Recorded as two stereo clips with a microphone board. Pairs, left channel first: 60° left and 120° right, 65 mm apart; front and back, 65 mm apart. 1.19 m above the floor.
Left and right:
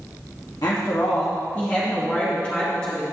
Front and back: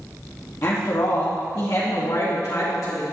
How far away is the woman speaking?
About 1.6 m.